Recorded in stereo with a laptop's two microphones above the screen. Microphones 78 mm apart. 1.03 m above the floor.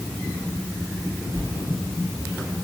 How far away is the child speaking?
No child speaking in this recording.